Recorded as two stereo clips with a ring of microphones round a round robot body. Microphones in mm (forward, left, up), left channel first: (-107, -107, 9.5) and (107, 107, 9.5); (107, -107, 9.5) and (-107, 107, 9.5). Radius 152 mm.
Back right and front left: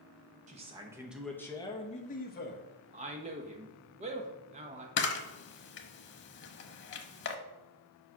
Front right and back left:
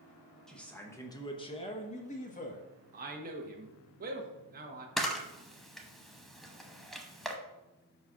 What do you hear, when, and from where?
0.5 s a man speaking: 40° left, 0.9 m; by 2.6 s 100° right, 1.2 m
2.9 s a man speaking: 95° left, 1.0 m
5.0 s a camera shutter: 135° right, 0.7 m